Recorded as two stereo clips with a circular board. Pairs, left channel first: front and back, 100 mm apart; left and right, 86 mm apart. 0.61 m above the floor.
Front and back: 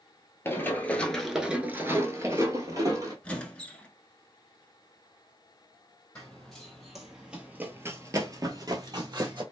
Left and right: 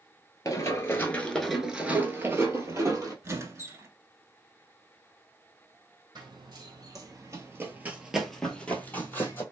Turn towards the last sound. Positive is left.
turn(degrees=145)